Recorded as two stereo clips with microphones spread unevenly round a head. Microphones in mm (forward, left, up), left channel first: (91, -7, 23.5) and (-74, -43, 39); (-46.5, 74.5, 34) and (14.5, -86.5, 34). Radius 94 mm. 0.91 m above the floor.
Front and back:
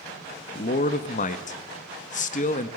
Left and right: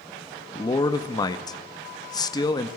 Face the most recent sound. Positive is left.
turn(degrees=45)